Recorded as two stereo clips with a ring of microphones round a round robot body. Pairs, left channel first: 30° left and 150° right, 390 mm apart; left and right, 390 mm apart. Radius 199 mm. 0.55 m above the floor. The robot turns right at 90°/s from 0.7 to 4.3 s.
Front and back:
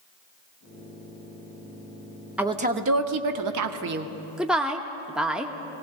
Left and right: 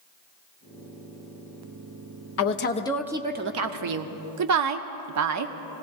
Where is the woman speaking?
125° left, 0.9 m; by 5.5 s 65° right, 0.9 m.